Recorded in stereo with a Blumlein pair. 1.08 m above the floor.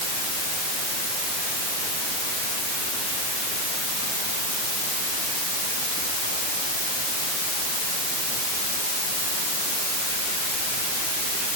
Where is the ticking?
No ticking in this recording.